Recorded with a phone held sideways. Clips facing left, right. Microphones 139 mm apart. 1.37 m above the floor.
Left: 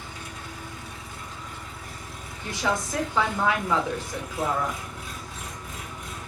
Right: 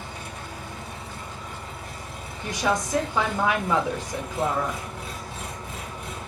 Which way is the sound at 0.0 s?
65° right (ahead or behind).